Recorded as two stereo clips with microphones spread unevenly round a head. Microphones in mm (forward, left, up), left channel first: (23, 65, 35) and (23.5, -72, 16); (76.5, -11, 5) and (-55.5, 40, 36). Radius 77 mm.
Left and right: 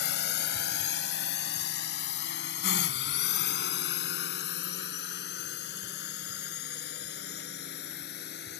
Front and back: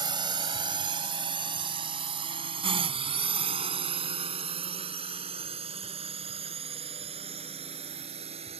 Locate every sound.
0.0 s a drone: 100° left; by 8.6 s 110° left